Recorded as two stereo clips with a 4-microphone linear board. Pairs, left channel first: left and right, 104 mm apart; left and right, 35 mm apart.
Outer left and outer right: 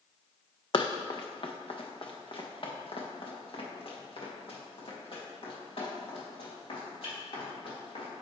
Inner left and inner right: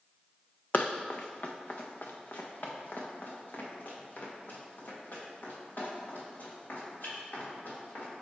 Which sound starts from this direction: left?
Running footsteps, at 0.7 s.